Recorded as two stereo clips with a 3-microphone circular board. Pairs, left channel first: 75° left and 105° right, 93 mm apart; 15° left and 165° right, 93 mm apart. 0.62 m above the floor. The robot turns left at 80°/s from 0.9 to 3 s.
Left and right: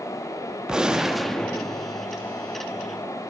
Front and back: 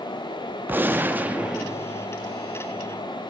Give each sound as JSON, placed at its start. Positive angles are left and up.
{"t": 0.7, "sound": "a gunshot", "azimuth_deg": -170, "distance_m": 0.6}